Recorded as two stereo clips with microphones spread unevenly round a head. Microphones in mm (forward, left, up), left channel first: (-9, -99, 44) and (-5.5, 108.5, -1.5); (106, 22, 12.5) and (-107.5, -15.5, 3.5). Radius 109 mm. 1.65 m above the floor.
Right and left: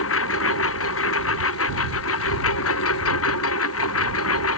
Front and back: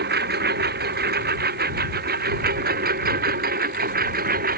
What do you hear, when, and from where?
0.0 s a lawn mower: 120° right; by 4.6 s 115° right